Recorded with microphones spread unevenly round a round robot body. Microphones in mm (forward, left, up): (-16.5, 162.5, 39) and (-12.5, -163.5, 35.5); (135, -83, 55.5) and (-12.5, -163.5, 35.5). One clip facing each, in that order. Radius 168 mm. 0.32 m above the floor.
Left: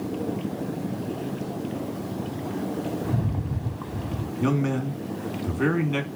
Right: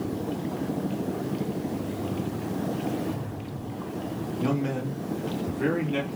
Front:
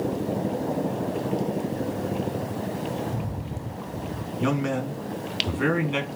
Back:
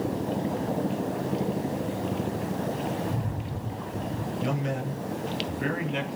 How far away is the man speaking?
About 3 m.